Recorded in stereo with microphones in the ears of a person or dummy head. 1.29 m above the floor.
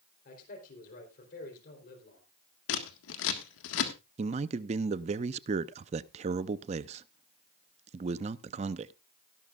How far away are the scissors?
About 1.7 m.